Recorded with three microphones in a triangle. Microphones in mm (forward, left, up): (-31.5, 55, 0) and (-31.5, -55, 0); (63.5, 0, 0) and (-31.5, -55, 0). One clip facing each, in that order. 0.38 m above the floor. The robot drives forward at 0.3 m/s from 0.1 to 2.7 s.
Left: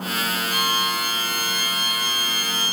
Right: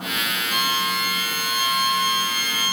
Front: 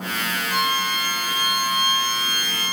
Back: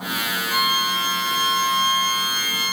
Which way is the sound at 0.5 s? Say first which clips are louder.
Right 1 dB, back 1 dB; 70° right.